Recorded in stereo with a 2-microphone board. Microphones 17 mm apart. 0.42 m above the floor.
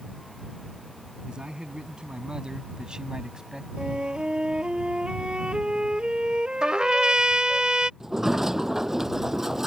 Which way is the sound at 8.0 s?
25° right (ahead or behind).